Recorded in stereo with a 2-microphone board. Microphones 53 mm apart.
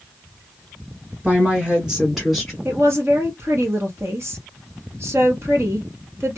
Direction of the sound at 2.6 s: 50° right (ahead or behind).